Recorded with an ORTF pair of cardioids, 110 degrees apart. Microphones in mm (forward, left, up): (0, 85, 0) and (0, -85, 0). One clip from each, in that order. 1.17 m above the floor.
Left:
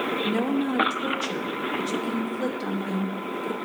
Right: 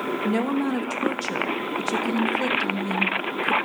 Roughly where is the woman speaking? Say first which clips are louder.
Right 1 dB; ahead.